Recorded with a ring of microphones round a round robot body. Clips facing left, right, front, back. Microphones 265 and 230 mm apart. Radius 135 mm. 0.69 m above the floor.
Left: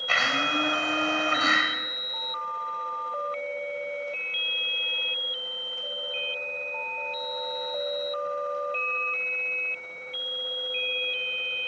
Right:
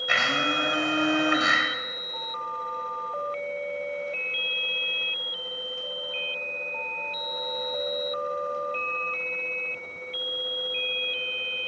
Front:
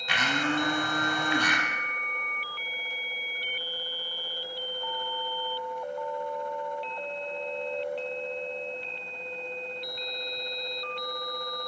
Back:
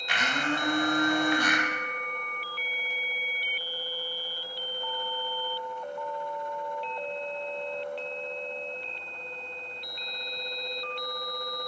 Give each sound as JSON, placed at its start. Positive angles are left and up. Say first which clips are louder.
{"t": 0.1, "sound": "a blender", "louder": "right 1 dB, front 2 dB", "azimuth_deg": -15, "distance_m": 2.5}